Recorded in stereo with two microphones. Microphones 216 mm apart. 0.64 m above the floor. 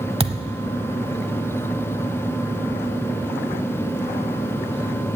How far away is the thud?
About 0.8 m.